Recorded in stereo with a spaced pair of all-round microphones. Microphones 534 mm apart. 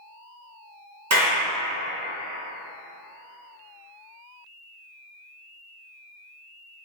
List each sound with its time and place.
1.1 s a clap: 30° right (ahead or behind), 0.9 m